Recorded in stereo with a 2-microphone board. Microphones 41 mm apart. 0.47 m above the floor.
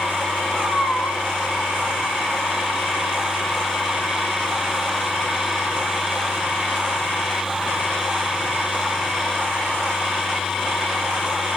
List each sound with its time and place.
0.5 s a cat meowing: 65° right (ahead or behind), 5.5 m